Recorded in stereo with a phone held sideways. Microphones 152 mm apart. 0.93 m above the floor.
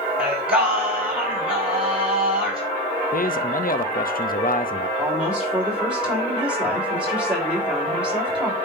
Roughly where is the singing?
Centre.